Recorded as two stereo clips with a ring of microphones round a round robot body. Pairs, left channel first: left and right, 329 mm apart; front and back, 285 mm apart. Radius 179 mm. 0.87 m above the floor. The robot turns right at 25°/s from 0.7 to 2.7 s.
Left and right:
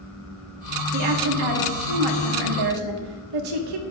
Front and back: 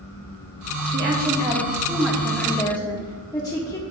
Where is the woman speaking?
125° right, 1.5 m; by 3.8 s 80° right, 1.5 m.